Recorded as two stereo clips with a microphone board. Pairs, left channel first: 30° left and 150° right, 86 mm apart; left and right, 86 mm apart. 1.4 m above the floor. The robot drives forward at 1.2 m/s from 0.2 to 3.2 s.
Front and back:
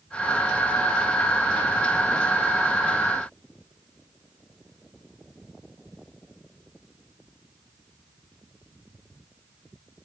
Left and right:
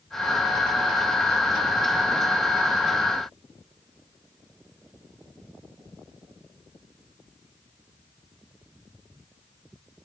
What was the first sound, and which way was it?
Only background noise.